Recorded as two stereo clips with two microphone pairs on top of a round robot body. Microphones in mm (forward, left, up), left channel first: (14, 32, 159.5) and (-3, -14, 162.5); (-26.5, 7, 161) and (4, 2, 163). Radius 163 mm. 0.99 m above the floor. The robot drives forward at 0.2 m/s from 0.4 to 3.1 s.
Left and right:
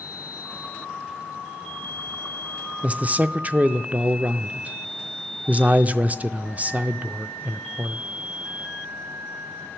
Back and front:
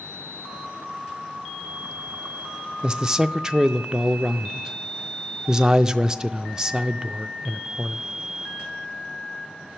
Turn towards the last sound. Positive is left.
turn(degrees=-70)